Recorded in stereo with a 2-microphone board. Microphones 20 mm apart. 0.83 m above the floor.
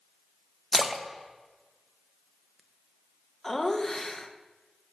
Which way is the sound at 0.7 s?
15° right (ahead or behind).